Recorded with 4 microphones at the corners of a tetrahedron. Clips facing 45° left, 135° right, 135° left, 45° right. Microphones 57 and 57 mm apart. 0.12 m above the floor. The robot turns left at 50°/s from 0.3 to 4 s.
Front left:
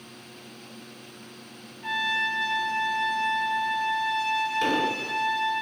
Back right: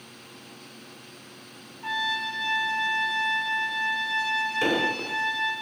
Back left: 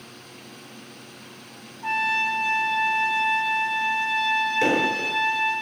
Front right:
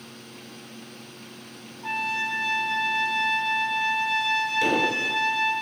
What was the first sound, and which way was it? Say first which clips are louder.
A trumpet: front left 2 dB, back left 4 dB; 140° left.